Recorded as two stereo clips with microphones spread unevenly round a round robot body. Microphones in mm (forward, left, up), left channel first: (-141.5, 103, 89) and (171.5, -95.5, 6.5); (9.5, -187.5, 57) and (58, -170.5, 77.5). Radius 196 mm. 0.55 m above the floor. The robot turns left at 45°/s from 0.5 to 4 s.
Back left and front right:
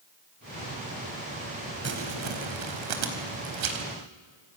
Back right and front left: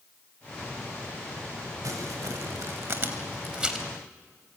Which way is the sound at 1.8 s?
25° left.